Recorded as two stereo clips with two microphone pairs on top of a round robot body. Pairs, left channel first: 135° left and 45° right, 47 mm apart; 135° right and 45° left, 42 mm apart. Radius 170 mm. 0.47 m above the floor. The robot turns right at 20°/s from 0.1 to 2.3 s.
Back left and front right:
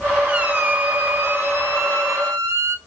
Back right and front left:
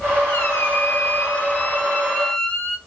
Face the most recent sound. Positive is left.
turn(degrees=-70)